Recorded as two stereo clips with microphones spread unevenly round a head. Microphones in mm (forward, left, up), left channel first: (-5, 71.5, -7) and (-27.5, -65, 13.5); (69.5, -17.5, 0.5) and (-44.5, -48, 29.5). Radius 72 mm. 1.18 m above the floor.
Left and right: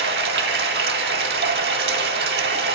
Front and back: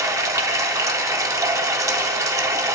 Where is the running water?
100° right, 2 m.